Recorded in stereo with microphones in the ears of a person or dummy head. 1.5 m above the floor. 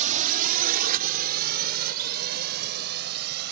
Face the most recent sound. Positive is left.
turn(degrees=-60)  # may be behind; listen again after turning